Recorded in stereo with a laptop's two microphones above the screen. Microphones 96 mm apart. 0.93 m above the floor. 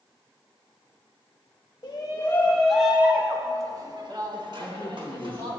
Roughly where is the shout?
Left.